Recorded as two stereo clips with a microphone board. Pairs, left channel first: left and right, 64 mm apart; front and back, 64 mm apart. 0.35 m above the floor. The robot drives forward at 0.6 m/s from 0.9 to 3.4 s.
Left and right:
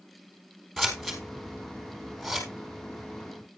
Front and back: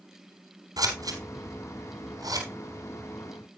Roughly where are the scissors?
Behind.